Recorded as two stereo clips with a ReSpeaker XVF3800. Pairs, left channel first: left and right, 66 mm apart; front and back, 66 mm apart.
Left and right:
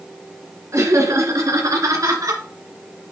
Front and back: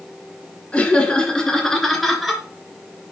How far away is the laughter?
About 2.5 m.